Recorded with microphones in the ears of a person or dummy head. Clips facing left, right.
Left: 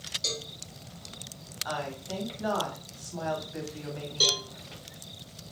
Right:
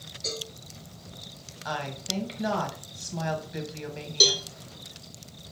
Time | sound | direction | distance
0.2 | a cowbell | 45° left (ahead or behind) | 1.8 m
1.6 | a woman speaking | 35° right (ahead or behind) | 1.3 m
4.2 | a cowbell | 30° right (ahead or behind) | 0.8 m